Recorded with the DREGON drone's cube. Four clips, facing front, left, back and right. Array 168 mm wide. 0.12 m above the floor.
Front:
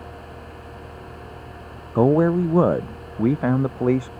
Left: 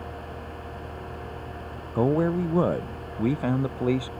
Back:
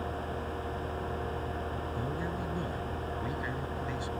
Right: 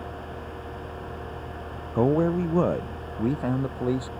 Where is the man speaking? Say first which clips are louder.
Right 1 dB, front 24 dB; 10° right; by 4.1 s 5° left.